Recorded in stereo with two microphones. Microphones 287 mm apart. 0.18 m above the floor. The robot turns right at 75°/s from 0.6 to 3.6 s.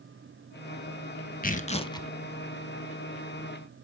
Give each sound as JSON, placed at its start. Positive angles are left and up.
{"t": 1.4, "sound": "tearing paper", "azimuth_deg": 115, "distance_m": 0.6}